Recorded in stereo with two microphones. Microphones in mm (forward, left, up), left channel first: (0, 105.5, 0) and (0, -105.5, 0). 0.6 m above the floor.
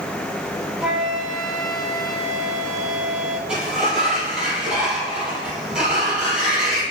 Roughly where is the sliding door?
Centre.